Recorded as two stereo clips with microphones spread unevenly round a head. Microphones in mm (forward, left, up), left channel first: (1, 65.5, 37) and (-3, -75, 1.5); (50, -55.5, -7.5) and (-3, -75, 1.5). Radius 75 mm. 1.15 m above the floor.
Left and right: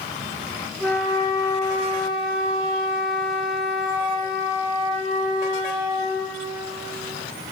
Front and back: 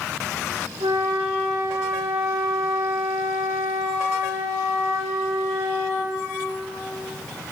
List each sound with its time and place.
0.8 s a flute: straight behind, 1.7 m